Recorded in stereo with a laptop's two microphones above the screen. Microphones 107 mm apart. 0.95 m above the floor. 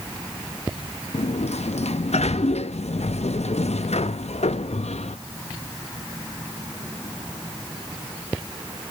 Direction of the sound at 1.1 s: 80° left.